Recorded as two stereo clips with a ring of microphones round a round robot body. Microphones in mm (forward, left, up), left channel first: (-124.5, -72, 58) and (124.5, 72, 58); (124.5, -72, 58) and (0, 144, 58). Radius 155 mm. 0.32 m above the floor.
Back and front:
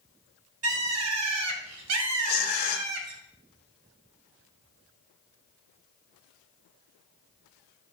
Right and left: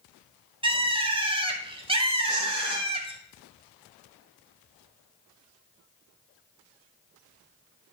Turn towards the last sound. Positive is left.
turn(degrees=-155)